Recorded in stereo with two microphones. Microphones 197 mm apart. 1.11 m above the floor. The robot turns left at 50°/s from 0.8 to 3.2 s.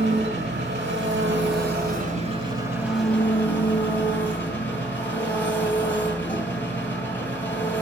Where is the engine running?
70° right, 2.5 m; by 7.8 s 170° left, 2.5 m.